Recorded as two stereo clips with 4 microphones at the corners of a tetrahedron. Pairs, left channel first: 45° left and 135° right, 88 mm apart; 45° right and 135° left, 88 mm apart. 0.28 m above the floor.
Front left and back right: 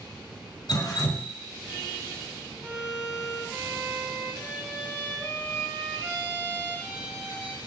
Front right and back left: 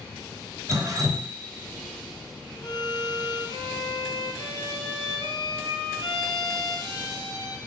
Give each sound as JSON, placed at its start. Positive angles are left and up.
{"t": 0.7, "sound": "dripping", "azimuth_deg": 85, "distance_m": 0.7}
{"t": 2.6, "sound": "a violin", "azimuth_deg": -60, "distance_m": 0.8}